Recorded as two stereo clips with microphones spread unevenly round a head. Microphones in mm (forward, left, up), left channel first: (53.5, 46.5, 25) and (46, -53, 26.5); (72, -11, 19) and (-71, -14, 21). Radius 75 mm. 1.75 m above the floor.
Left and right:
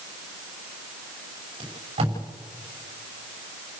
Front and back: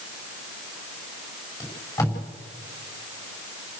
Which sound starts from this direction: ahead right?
Tape being pulled, at 1.6 s.